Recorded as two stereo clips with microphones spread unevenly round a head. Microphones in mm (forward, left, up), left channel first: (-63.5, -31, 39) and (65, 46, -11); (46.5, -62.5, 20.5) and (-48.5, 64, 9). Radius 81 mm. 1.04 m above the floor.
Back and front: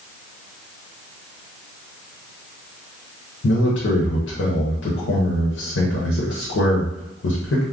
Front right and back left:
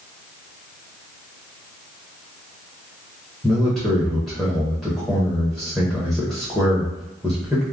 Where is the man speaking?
145° right, 0.7 m.